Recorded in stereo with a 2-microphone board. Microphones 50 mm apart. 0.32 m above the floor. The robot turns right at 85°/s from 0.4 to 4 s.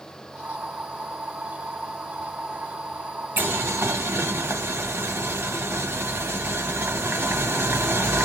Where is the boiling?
130° right, 1.3 m; by 8.2 s 75° right, 1.3 m.